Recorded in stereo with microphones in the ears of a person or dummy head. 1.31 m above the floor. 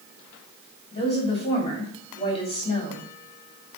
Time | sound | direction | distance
0.9 | a woman speaking | 30° left (ahead or behind) | 3 m